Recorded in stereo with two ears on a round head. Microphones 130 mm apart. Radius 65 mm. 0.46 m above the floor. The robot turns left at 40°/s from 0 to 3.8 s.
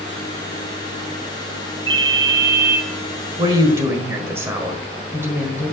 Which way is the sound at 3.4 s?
30° right (ahead or behind).